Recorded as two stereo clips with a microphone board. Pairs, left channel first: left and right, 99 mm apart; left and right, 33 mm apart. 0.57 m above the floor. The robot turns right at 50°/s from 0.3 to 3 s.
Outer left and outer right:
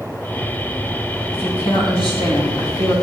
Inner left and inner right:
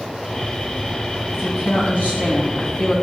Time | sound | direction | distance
1.3 | a woman speaking | 75° left | 3.5 m